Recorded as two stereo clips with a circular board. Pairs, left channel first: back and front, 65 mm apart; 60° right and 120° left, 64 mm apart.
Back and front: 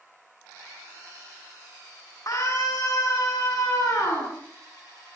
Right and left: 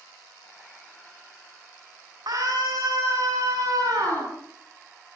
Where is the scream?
140° left, 9 m.